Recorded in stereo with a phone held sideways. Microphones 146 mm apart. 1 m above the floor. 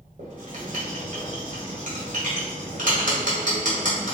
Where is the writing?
60° right (ahead or behind), 1.3 m.